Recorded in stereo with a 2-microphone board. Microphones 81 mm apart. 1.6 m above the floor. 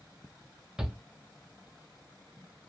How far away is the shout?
About 0.7 m.